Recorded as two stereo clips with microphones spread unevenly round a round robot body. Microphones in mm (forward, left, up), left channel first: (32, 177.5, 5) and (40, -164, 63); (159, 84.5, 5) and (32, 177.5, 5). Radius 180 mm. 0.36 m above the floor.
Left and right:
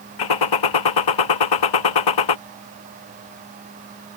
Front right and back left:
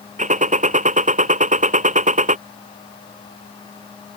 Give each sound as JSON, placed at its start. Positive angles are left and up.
{"t": 0.2, "sound": "a gunshot", "azimuth_deg": 105}